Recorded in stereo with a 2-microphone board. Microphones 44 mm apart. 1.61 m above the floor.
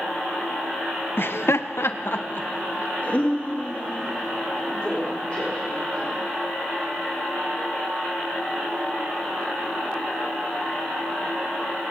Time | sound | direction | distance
1.2 | laughter | 60° left (ahead or behind) | 1.1 m